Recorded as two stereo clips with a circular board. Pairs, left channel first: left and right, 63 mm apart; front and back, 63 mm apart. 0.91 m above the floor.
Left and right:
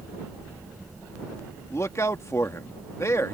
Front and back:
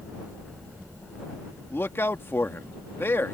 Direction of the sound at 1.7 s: 50° left.